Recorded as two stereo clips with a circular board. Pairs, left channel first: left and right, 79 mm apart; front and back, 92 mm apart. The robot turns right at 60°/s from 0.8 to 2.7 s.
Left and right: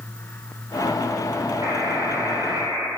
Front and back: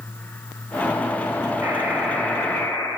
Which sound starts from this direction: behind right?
A buzzer, at 1.6 s.